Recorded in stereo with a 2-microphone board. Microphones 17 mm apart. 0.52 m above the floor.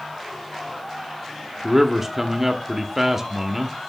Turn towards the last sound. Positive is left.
turn(degrees=-15)  # may be behind; listen again after turning